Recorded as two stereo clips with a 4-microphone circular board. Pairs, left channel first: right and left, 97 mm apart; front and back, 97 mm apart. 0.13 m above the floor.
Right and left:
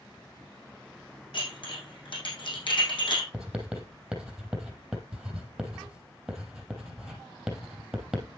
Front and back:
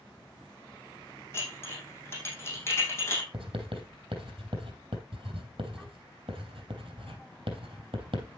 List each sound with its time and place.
1.3 s dishes clattering: 60° right, 4 m
3.3 s writing: 175° left, 3 m